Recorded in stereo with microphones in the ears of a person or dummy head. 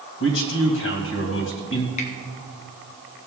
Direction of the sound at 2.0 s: 40° left (ahead or behind).